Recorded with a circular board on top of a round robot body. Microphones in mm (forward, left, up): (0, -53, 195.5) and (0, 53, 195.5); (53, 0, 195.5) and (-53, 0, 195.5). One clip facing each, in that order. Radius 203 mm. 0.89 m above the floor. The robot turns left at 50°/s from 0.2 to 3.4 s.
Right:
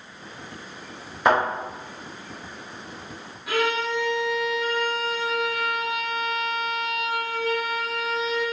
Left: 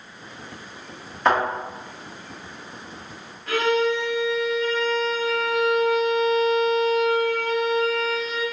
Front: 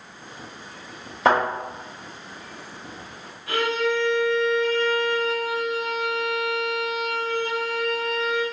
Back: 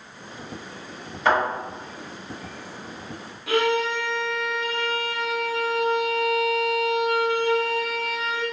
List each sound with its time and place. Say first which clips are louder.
1.2 s a thud: even, front 2 dB; 10° right, 1.0 m; by 1.4 s 15° right, 1.0 m
3.5 s a violin: left 4 dB, back 1 dB; 170° right, 1.1 m